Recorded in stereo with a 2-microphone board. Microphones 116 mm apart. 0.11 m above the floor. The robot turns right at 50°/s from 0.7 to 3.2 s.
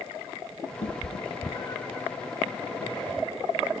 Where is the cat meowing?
70° left (ahead or behind), 1.5 m; by 2.0 s 15° left (ahead or behind), 1.5 m.